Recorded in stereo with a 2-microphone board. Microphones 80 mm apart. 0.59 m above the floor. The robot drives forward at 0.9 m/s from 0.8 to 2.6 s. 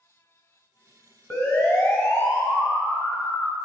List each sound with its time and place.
1.3 s a siren: 25° left (ahead or behind), 4 m; by 3.5 s 55° left (ahead or behind), 2.5 m